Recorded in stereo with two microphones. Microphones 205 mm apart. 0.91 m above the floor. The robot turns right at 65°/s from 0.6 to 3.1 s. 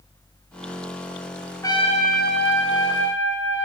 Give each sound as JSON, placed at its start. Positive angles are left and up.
{"t": 1.6, "sound": "a trumpet", "azimuth_deg": 15, "distance_m": 4.5}